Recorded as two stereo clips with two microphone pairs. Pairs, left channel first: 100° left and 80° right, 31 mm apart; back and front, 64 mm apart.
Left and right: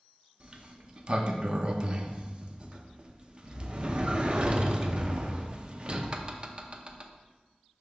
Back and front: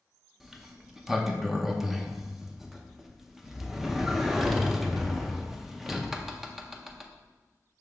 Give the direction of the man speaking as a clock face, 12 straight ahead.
I don't hear a man speaking.